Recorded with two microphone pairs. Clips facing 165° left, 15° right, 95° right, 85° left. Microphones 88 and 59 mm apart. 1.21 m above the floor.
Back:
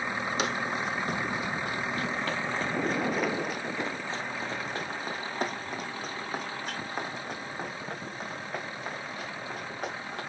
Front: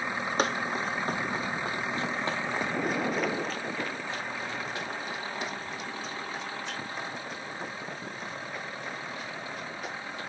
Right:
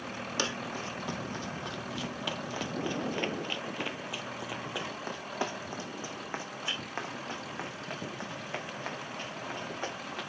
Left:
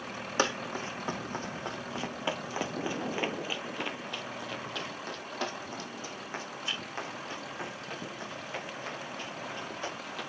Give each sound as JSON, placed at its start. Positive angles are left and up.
{"t": 0.4, "sound": "running footsteps", "azimuth_deg": 30, "distance_m": 2.5}